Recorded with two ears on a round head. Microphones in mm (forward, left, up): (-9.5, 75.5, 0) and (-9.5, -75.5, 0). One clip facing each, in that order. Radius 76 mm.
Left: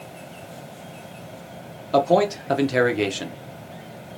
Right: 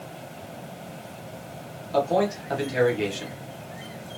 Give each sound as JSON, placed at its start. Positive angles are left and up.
{"t": 1.9, "sound": "a man speaking", "side_deg": 65, "distance_m": 0.9}